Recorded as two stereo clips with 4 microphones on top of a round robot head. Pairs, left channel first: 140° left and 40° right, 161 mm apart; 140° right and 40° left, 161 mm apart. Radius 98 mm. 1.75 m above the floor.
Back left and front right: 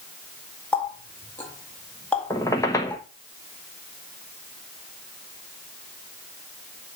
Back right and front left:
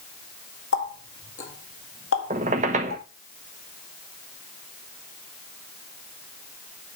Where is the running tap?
140° right, 2.0 m.